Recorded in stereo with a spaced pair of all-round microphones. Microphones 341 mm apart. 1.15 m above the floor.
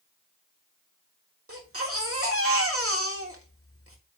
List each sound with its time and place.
1.5 s a baby crying: 45° right (ahead or behind), 1.7 m